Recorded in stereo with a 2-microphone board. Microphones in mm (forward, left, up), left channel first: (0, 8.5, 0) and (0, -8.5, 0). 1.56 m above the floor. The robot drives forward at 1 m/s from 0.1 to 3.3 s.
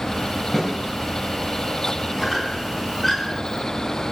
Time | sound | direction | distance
0.5 | a snare drum | 20° left (ahead or behind) | 5 m
2.2 | a squeak | 10° left (ahead or behind) | 5 m